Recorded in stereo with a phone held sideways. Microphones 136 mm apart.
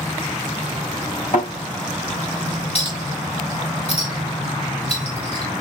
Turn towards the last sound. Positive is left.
turn(degrees=50)  # may be behind; listen again after turning